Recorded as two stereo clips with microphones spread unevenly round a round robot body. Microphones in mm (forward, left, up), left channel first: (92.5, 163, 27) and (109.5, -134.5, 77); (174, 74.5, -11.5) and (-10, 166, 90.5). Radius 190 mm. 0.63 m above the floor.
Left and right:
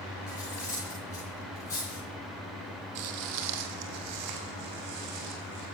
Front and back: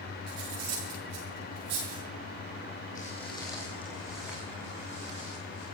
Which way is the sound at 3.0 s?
110° right.